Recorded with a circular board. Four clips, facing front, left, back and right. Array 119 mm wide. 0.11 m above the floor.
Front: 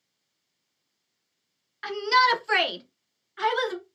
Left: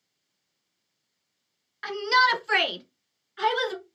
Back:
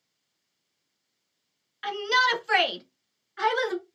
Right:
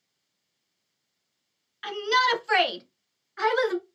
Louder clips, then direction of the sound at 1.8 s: Left 2 dB, front 3 dB; 55° left.